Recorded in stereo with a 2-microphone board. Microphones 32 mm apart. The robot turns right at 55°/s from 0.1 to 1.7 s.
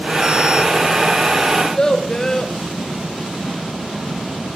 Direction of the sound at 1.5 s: 10° left (ahead or behind).